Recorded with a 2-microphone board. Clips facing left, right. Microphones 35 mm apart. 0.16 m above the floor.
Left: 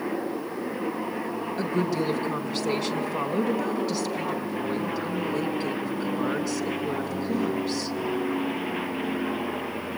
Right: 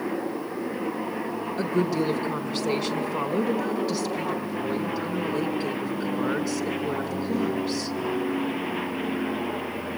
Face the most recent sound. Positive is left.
turn(degrees=-5)  # may be behind; listen again after turning